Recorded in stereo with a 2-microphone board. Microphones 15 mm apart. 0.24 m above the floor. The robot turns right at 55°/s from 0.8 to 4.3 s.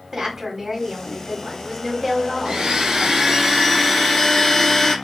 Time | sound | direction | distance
0.1 | a woman speaking | 20° right (ahead or behind) | 1.4 m
2.5 | a blender | 70° right | 1.1 m